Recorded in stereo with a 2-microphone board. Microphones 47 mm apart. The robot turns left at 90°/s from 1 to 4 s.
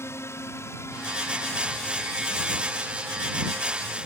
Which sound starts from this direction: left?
A drone, at 0.0 s.